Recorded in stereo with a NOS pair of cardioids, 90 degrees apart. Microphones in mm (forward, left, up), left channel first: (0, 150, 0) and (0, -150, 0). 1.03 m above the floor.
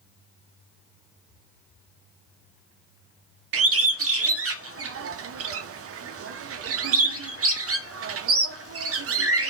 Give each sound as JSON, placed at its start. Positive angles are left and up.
{"t": 3.5, "sound": "a bird", "azimuth_deg": -50, "distance_m": 0.5}